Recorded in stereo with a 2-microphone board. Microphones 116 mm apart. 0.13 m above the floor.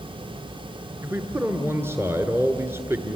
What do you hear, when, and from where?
1.0 s a man speaking: 20° right (ahead or behind), 1.5 m